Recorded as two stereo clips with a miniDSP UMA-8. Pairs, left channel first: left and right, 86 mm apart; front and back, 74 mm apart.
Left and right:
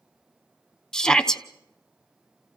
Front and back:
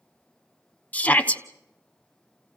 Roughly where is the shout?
Ahead.